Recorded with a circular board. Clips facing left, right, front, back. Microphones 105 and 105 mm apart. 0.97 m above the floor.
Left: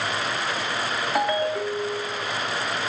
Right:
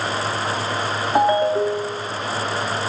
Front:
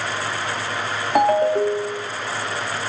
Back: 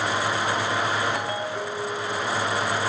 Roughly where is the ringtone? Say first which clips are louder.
Right 8 dB, front 12 dB; ahead right.